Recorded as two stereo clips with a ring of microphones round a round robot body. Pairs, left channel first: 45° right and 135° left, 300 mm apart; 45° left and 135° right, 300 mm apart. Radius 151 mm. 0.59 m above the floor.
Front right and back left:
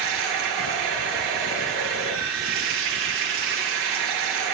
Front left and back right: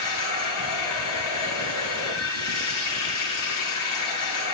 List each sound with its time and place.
0.0 s running water: 85° left, 8.5 m